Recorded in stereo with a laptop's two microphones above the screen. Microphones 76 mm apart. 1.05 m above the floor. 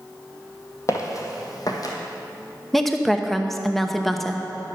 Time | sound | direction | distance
0.9 | footsteps | 45° left (ahead or behind) | 1.5 m
2.7 | a woman speaking | 5° left (ahead or behind) | 0.9 m